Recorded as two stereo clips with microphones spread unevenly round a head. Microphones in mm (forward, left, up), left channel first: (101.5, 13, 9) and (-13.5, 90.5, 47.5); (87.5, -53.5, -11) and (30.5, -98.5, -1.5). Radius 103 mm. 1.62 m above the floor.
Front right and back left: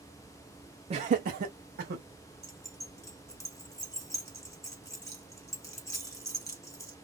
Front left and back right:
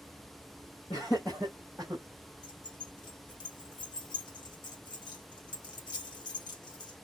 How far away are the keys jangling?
About 1.5 m.